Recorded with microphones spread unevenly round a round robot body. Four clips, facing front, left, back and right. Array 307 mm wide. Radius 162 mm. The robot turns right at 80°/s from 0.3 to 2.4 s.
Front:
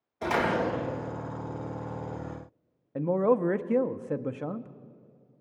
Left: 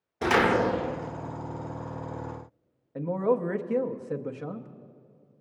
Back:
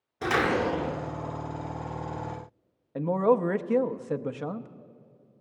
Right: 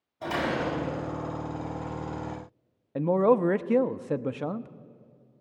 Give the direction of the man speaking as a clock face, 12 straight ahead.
2 o'clock.